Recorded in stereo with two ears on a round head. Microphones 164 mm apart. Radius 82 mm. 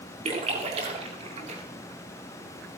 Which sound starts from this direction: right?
A splash, at 0.2 s.